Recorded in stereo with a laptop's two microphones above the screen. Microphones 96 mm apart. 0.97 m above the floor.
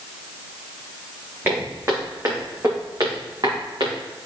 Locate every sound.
1.4 s footsteps: 25° right (ahead or behind), 3 m; by 4.0 s 60° right (ahead or behind), 3.5 m